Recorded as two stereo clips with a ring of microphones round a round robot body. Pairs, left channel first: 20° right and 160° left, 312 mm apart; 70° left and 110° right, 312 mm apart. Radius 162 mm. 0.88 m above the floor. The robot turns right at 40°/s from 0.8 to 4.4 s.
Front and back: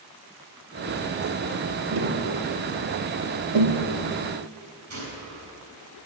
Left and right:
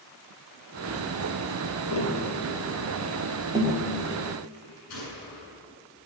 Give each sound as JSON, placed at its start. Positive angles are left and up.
{"t": 1.9, "sound": "tapping", "azimuth_deg": 100, "distance_m": 2.0}
{"t": 4.9, "sound": "a gunshot", "azimuth_deg": 110, "distance_m": 6.0}